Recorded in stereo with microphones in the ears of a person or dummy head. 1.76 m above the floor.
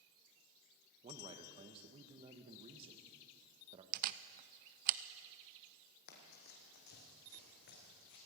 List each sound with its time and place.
1.0 s a man speaking: 35° right (ahead or behind), 1.5 m
3.9 s a camera shutter: 50° right (ahead or behind), 0.7 m
6.1 s running footsteps: 50° left (ahead or behind), 3.5 m; by 8.2 s 55° left (ahead or behind), 6 m